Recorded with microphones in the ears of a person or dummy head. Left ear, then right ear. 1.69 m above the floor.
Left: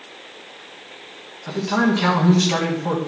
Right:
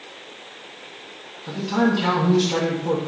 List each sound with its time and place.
1.5 s a man speaking: 40° left (ahead or behind), 1.5 m